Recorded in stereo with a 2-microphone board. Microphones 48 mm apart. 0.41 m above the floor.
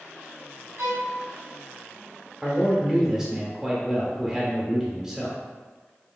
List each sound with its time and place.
0.8 s a violin: 80° right, 1.2 m
2.4 s a man speaking: 10° right (ahead or behind), 1.2 m